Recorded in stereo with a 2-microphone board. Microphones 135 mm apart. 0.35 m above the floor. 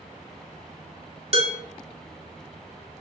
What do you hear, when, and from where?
1.3 s dishes clattering: 50° right (ahead or behind), 1.3 m